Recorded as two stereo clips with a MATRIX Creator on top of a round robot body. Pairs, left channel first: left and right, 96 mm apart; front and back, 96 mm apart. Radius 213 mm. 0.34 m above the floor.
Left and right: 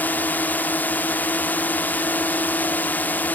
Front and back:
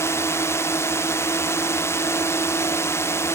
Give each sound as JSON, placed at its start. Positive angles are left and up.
{"t": 0.0, "sound": "a drone", "azimuth_deg": 35}